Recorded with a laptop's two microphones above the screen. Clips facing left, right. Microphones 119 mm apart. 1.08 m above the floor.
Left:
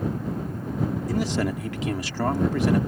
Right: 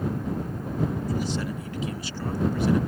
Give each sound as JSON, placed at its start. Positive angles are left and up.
{"t": 1.1, "sound": "a man speaking", "side_deg": 80}